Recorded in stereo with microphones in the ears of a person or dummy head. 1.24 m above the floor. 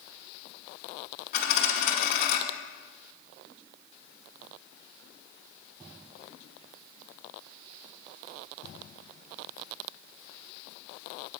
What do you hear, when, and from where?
1.3 s a dropped coin: 50° left (ahead or behind), 1.3 m